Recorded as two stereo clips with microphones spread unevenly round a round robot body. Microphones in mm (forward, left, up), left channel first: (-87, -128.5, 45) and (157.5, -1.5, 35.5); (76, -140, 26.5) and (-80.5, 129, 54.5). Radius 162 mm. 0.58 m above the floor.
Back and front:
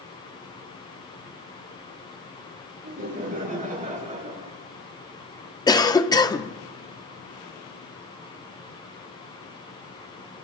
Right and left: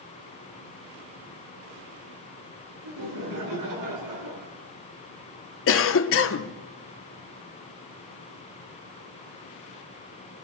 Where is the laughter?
90° left, 6 m; by 4.5 s 100° left, 5 m.